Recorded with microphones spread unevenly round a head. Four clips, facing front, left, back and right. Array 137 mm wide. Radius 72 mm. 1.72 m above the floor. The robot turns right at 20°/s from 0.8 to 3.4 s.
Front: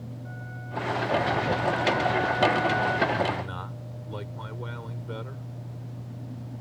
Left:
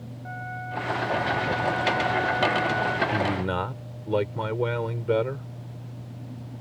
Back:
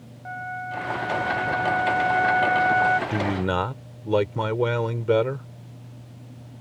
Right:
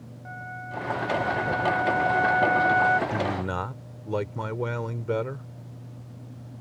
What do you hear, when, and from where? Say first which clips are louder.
0.2 s a flute: left 2 dB, back 9 dB; 160° left; by 3.0 s 155° right
3.1 s a man speaking: left 2 dB, back 4 dB; 155° left; by 5.5 s 160° left